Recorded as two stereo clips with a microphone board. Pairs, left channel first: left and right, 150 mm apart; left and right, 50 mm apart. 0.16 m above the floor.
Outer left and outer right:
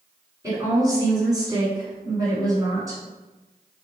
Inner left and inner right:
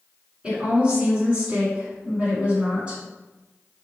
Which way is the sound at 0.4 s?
20° right (ahead or behind).